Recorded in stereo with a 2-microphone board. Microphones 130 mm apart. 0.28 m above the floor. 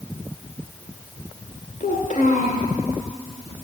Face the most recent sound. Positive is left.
turn(degrees=75)  # may be behind; listen again after turning